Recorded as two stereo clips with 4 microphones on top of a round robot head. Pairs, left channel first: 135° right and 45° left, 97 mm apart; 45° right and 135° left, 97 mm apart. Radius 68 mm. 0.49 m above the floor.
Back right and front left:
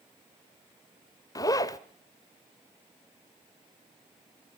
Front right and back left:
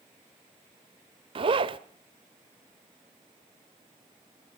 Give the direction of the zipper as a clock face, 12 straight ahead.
6 o'clock.